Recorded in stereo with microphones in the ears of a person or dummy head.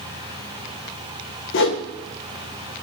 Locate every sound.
1.5 s a whoosh: 60° left (ahead or behind), 1.1 m